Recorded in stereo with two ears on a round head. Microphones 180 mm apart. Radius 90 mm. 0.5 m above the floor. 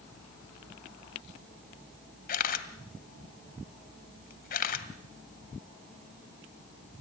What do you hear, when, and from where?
2.3 s a camera shutter: 45° left (ahead or behind), 1.6 m